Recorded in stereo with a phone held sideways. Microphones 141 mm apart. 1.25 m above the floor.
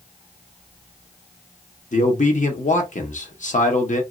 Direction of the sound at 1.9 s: 60° left (ahead or behind).